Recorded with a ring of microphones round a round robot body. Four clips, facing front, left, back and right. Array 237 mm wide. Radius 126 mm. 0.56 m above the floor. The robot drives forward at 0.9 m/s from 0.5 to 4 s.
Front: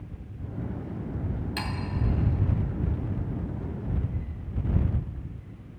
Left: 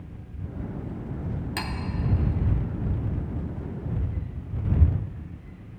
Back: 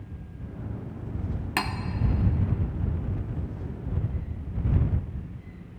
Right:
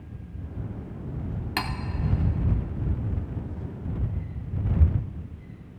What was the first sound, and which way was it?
Cutlery clinking, 150° right.